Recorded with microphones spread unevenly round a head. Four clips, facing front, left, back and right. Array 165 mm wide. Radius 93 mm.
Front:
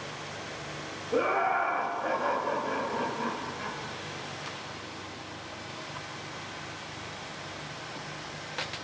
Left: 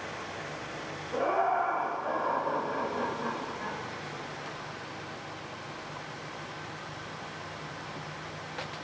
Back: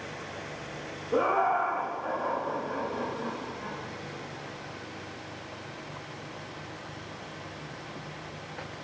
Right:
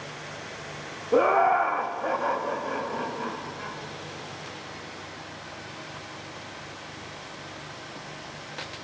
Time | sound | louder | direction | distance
1.1 | laughter | right 7 dB, back 1 dB | 95° right | 0.6 m